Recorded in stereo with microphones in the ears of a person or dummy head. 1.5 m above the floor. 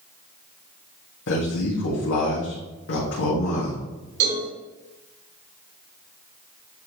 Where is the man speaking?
75° left (ahead or behind), 2 m.